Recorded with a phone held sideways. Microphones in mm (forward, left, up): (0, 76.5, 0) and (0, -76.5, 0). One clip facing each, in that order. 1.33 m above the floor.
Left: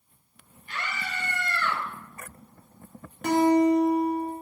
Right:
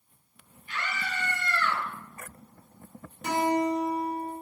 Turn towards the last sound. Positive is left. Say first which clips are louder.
# left 6 dB
turn(degrees=70)  # may be behind; listen again after turning